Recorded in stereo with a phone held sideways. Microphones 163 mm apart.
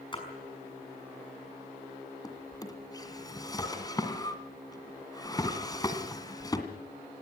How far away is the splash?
About 6 m.